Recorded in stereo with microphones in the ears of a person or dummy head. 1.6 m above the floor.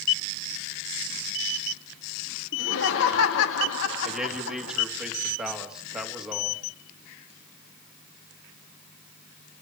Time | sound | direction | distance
2.5 | laughter | 75° left (ahead or behind) | 2.5 m
4.0 | a man speaking | centre (ahead or behind) | 3 m